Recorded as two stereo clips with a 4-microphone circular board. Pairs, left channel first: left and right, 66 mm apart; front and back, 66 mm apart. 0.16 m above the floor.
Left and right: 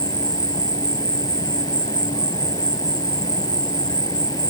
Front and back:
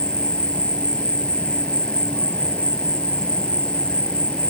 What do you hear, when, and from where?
0.0 s an insect: 75° left